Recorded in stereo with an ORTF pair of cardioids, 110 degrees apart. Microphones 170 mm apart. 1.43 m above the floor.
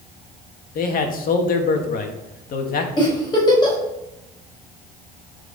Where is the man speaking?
55° left, 2 m.